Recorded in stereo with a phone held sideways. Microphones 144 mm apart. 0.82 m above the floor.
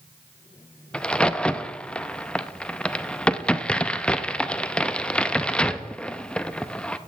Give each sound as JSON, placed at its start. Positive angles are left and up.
{"t": 0.9, "sound": "a crack", "side_deg": 5, "distance_m": 0.6}